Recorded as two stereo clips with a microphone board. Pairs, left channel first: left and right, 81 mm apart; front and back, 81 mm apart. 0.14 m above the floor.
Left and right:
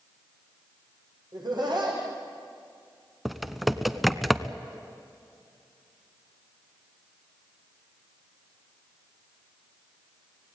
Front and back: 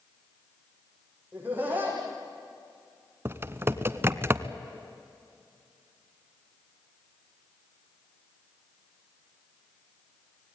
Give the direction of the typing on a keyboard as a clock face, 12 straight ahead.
6 o'clock.